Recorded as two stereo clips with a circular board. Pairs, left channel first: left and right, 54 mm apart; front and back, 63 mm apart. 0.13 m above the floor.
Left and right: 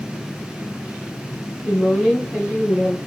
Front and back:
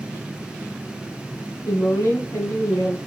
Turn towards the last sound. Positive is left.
turn(degrees=20)